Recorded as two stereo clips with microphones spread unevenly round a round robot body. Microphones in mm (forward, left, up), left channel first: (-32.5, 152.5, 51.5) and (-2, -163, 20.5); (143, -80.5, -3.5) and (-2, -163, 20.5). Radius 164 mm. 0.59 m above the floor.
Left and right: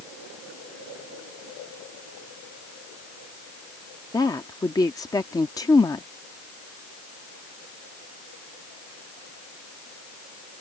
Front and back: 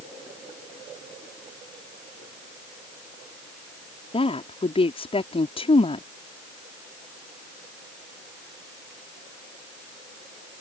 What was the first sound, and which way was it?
A woman speaking, 15° left.